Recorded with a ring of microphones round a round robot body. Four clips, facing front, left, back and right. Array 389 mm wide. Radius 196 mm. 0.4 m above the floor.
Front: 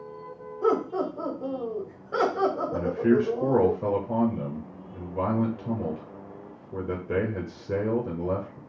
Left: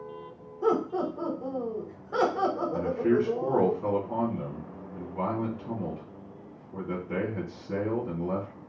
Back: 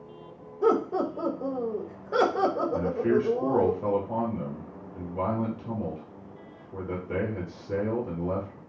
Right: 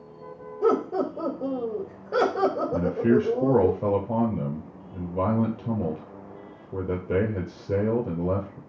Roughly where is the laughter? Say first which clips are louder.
Right 3 dB, back 1 dB; behind right.